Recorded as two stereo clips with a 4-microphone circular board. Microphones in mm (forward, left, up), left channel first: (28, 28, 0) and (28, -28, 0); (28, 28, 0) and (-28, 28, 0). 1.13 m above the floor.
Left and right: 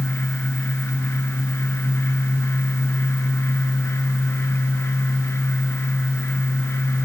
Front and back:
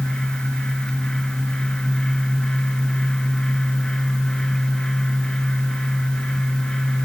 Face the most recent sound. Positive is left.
No sound to turn to.